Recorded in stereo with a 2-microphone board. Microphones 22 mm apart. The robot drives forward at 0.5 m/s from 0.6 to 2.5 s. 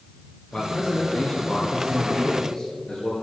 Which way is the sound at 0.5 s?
55° left (ahead or behind).